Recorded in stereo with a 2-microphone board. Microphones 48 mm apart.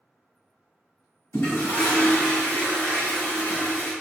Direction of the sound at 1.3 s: 85° left.